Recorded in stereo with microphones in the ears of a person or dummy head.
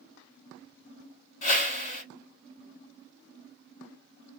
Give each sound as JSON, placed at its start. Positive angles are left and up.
{"t": 1.4, "sound": "a whoosh", "side_deg": 40, "distance_m": 2.5}